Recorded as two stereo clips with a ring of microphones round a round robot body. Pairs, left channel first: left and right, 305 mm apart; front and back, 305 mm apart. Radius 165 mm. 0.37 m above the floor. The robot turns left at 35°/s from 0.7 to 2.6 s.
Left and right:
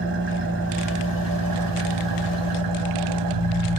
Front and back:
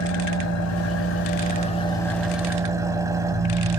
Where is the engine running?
35° right, 1.2 m; by 3.8 s 100° right, 1.2 m.